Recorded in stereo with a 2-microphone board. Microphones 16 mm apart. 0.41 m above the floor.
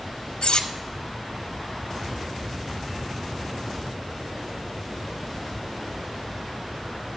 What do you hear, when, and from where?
0.4 s cutlery clinking: 75° left (ahead or behind), 1.1 m